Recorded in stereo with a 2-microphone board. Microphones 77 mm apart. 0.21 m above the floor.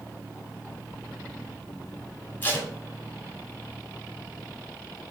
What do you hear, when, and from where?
2.4 s tape being pulled: 25° left (ahead or behind), 1.0 m